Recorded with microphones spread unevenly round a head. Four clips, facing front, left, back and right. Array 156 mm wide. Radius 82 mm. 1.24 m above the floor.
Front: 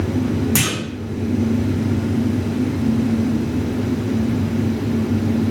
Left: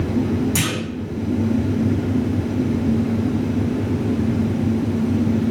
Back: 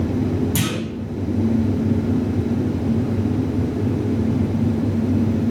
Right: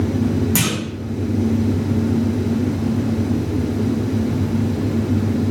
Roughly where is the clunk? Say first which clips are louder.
Right 2 dB, front 1 dB; ahead.